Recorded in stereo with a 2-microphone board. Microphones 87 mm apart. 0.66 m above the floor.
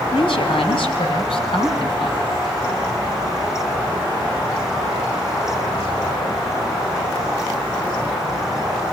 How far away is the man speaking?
About 4 m.